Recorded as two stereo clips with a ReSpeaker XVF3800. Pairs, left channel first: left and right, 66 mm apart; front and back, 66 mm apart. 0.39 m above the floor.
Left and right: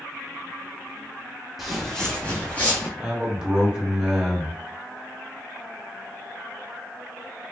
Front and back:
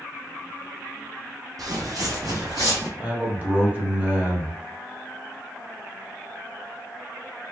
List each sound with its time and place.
1.6 s footsteps: 175° right, 0.9 m; by 2.9 s 150° left, 1.3 m
3.0 s a man speaking: 155° right, 1.0 m